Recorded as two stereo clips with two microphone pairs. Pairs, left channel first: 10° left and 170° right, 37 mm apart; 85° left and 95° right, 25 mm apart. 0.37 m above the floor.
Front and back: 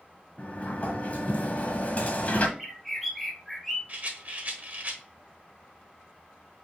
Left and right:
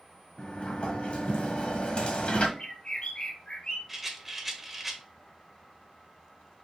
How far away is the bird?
About 1.4 m.